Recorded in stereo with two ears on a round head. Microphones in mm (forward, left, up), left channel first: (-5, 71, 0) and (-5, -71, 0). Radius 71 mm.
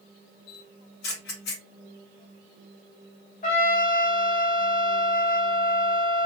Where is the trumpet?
50° left (ahead or behind), 1.2 m.